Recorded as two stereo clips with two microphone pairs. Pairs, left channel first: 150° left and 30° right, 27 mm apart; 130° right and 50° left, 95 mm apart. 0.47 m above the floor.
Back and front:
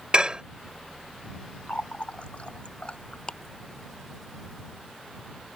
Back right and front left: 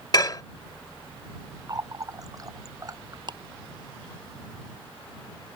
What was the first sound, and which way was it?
Dishes clattering, 85° right.